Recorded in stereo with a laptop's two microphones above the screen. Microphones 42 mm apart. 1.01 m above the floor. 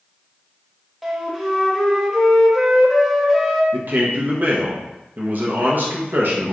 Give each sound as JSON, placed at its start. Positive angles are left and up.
{"t": 1.0, "sound": "a flute", "side_deg": 0, "distance_m": 0.6}
{"t": 3.7, "sound": "a man speaking", "side_deg": -55, "distance_m": 0.8}